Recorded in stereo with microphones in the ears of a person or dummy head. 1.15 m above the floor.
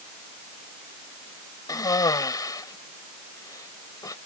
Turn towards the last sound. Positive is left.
turn(degrees=15)  # may be behind; listen again after turning